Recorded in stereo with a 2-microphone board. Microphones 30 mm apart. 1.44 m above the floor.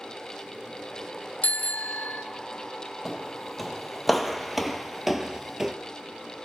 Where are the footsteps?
5° left (ahead or behind), 2.5 m; by 5.7 s 15° right (ahead or behind), 1.5 m.